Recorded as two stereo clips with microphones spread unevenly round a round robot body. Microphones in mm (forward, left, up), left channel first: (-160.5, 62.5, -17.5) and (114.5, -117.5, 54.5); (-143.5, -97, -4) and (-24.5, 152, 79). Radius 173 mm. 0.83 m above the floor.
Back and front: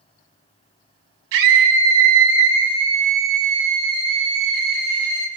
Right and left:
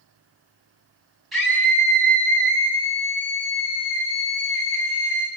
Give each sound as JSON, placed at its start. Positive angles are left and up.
{"t": 1.3, "sound": "a scream", "azimuth_deg": -25, "distance_m": 9.0}